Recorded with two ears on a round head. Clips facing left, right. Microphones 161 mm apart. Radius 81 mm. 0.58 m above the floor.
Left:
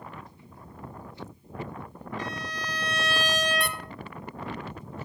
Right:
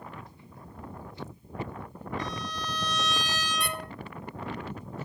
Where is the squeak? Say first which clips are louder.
Left 2 dB; 50° left (ahead or behind), 0.7 m.